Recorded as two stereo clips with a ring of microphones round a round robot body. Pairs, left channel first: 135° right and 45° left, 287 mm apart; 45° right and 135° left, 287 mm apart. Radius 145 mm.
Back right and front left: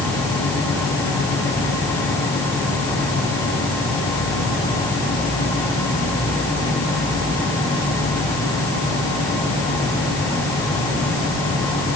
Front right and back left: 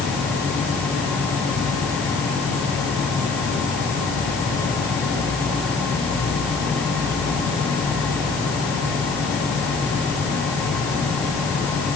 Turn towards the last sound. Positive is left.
No sound to turn to.